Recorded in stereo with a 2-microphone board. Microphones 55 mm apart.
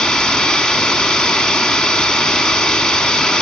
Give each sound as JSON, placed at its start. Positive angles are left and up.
{"t": 0.0, "sound": "running water", "side_deg": 15, "distance_m": 0.7}